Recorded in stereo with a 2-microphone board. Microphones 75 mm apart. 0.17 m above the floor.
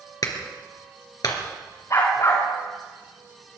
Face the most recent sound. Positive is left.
turn(degrees=45)  # may be behind; listen again after turning